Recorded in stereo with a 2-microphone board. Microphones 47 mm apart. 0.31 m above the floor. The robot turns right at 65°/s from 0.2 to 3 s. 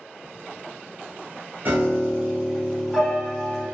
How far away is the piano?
About 1.0 m.